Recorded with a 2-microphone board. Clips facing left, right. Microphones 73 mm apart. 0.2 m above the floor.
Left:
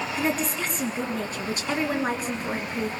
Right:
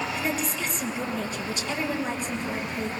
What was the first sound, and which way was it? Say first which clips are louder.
A woman speaking: left 2 dB; 40° left (ahead or behind).